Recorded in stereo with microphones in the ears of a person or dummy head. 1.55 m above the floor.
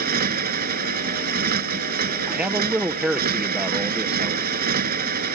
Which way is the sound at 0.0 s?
50° right (ahead or behind).